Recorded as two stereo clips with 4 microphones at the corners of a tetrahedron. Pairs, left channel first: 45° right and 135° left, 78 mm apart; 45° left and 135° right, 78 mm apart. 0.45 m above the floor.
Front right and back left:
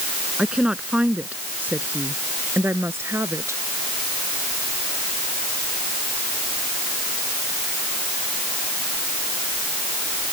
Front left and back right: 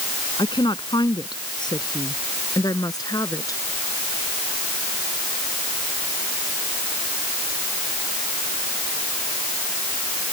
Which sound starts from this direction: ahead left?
A woman speaking, at 0.4 s.